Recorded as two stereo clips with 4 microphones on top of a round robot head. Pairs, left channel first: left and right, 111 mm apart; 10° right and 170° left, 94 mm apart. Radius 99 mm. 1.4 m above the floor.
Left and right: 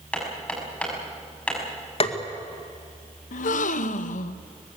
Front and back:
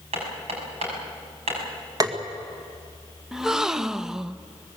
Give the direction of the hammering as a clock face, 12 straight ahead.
6 o'clock.